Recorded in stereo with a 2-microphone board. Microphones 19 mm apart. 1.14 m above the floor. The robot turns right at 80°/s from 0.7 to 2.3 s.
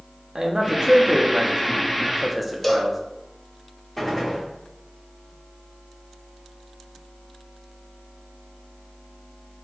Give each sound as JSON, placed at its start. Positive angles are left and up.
{"t": 0.3, "sound": "a man speaking", "side_deg": -40, "distance_m": 0.9}
{"t": 2.6, "sound": "a cowbell", "side_deg": 15, "distance_m": 0.7}
{"t": 4.0, "sound": "a gunshot", "side_deg": 5, "distance_m": 1.6}